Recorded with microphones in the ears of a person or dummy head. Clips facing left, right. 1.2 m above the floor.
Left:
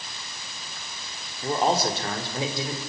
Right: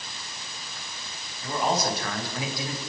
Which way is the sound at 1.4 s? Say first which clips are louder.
Left 3 dB; 35° left (ahead or behind).